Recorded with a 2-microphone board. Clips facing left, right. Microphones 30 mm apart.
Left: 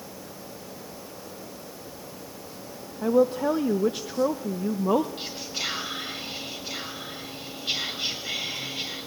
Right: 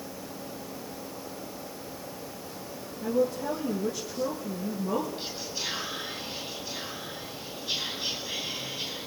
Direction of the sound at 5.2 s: 85° left.